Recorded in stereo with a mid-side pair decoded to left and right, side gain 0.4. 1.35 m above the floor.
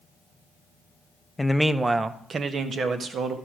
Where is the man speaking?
10° left, 0.6 m; by 3.4 s 65° right, 1.7 m.